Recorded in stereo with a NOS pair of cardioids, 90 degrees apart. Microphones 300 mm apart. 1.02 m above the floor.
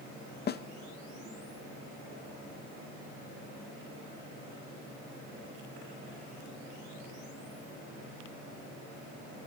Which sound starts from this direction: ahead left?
A snare drum, at 0.5 s.